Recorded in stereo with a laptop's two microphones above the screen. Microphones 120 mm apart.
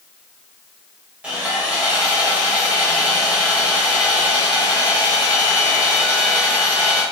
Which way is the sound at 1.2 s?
10° right (ahead or behind).